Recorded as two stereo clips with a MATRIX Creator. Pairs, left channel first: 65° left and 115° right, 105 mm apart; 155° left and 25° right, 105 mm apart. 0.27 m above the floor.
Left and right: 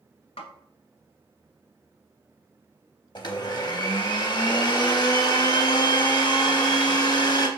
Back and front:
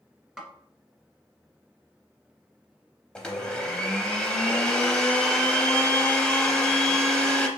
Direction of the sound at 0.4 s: 60° left.